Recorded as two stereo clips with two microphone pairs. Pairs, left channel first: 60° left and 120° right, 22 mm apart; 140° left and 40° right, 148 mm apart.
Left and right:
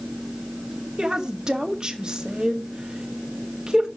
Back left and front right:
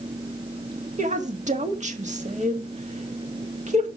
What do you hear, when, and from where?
1.0 s a woman speaking: 70° right, 1.7 m